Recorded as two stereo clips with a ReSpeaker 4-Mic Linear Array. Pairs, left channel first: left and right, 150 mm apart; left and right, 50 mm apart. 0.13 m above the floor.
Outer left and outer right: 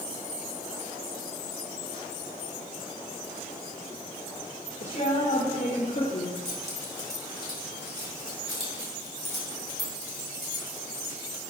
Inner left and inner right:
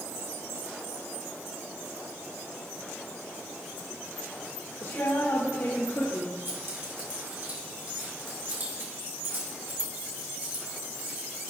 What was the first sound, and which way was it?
A woman speaking, 70° left (ahead or behind).